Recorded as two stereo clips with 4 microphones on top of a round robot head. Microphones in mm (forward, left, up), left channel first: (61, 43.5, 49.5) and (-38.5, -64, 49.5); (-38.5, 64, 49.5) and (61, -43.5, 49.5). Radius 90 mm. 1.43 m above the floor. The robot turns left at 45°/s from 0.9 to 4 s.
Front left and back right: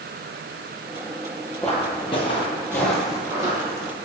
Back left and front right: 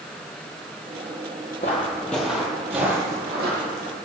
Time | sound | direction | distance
1.6 | footsteps | 125° left | 1.7 m